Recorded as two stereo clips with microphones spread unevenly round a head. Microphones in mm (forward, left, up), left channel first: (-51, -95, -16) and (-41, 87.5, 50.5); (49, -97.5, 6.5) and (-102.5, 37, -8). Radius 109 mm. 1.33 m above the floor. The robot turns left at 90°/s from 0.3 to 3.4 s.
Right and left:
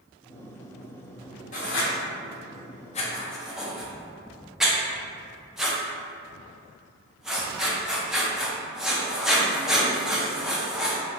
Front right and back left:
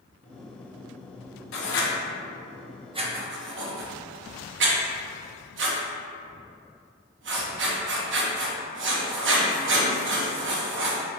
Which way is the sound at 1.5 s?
25° right.